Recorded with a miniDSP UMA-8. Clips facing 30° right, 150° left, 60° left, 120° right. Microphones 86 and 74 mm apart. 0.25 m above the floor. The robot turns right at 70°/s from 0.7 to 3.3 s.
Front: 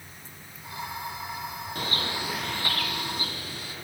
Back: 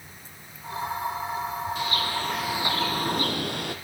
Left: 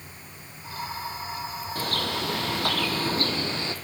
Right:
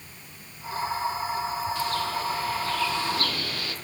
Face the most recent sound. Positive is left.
turn(degrees=125)